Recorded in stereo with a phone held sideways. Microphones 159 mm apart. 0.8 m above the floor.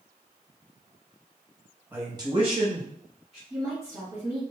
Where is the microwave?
No microwave in this recording.